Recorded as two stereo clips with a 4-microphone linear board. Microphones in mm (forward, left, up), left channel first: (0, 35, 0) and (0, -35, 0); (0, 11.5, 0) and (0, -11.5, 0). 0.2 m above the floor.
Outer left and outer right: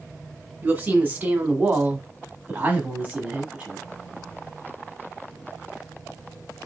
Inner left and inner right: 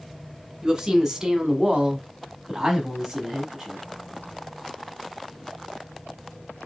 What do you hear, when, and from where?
0.6 s a woman speaking: 25° right (ahead or behind), 1.8 m; by 3.8 s 15° right (ahead or behind), 1.5 m